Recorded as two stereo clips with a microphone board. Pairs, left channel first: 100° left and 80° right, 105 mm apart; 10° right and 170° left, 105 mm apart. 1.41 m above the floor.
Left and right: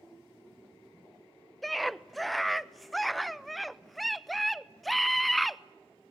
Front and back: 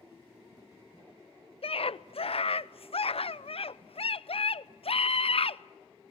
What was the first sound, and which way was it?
A scream, 10° left.